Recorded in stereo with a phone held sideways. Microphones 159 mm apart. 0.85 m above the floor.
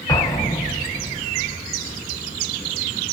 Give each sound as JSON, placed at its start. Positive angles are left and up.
{"t": 0.1, "sound": "an explosion", "side_deg": 25, "distance_m": 1.3}